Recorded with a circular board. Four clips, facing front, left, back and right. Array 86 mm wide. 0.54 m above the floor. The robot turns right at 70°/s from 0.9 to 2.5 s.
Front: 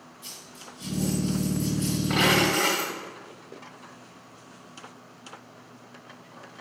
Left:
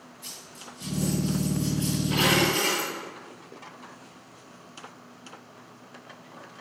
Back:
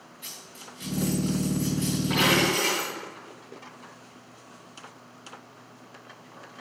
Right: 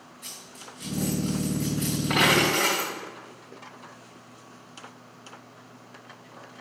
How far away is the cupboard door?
No cupboard door in this recording.